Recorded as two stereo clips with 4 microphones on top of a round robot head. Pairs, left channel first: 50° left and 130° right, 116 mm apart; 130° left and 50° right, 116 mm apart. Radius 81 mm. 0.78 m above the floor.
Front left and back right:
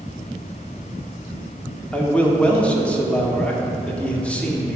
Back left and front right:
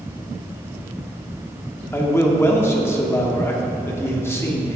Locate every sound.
1.9 s a man speaking: 115° left, 0.8 m